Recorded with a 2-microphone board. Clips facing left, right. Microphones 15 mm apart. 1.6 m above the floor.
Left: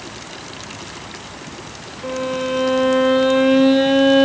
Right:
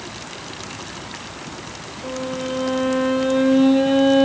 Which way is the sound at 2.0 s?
40° left (ahead or behind).